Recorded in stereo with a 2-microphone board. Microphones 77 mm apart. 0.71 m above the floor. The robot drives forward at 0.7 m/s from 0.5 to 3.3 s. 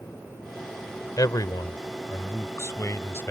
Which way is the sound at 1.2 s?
60° left (ahead or behind).